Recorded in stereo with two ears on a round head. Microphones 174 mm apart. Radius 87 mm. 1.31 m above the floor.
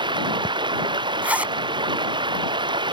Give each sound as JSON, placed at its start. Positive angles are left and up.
{"t": 0.0, "sound": "running water", "side_deg": -25}
{"t": 1.2, "sound": "a zipper", "side_deg": -10}